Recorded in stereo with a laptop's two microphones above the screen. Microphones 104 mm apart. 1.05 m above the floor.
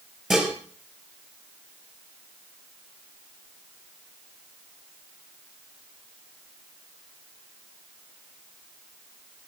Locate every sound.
0.3 s dishes clattering: 5° right (ahead or behind), 4.5 m